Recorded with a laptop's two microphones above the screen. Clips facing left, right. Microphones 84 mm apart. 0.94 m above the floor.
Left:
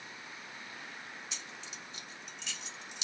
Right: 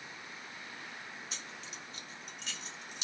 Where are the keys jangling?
45° right (ahead or behind), 1.0 m.